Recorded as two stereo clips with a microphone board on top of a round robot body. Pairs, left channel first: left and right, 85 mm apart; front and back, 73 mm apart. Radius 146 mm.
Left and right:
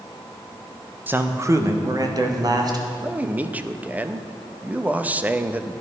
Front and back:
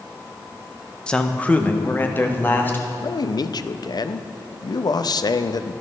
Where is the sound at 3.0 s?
20° right, 0.7 m.